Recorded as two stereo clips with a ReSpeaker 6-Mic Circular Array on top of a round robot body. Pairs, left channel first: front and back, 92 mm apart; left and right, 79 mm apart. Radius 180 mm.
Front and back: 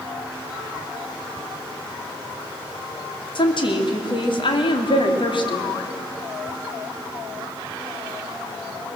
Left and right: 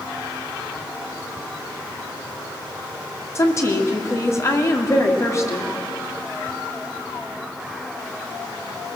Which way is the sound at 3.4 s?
30° left.